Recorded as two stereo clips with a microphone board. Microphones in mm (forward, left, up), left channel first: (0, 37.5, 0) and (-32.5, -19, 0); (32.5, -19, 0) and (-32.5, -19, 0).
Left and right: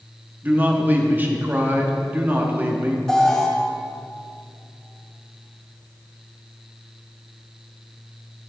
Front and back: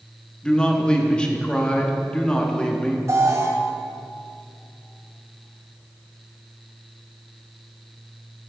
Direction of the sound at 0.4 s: 70° right.